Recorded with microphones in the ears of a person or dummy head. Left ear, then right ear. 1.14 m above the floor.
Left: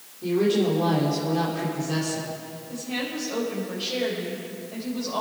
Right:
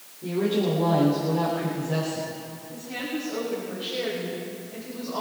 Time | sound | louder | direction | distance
0.2 | a woman speaking | left 3 dB | 80° left | 3.5 m
2.7 | a woman speaking | left 2 dB | 70° left (ahead or behind) | 5 m